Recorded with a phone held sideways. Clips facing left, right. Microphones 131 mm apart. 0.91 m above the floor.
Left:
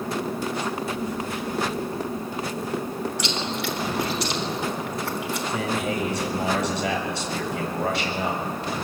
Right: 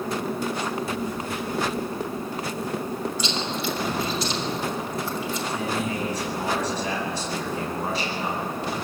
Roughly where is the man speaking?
Left.